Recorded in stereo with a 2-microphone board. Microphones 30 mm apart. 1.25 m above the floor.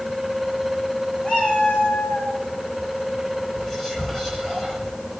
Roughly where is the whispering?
Centre.